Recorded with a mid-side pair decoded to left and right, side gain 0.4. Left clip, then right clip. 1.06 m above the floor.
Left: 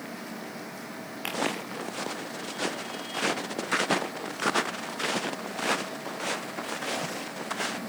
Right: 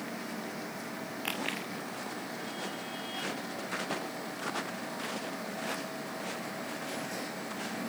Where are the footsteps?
70° left.